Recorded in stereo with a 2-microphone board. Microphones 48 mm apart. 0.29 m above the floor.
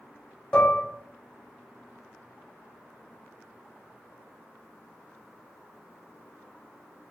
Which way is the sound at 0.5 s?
20° left (ahead or behind).